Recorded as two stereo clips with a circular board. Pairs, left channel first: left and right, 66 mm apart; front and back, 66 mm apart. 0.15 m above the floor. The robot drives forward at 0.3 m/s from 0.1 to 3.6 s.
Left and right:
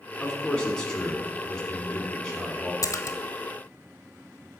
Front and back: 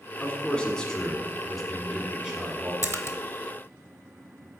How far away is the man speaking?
About 1.2 m.